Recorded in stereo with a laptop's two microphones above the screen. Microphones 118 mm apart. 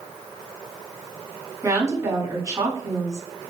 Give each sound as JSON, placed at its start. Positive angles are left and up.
{"t": 1.6, "sound": "a woman speaking", "side_deg": -30, "distance_m": 2.0}